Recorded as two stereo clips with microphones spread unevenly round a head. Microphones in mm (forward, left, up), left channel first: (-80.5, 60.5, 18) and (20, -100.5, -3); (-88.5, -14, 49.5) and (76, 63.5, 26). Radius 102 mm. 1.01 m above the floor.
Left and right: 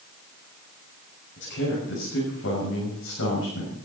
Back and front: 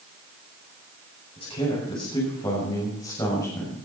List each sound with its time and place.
1.4 s a man speaking: 145° left, 6.5 m; by 3.7 s 130° left, 6 m